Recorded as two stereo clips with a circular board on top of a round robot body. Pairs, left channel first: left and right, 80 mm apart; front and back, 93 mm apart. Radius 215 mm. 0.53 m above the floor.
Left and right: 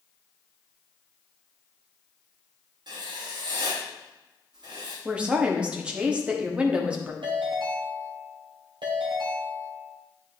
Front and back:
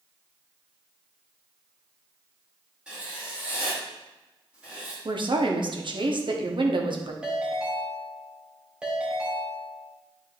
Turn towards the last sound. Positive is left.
turn(degrees=-100)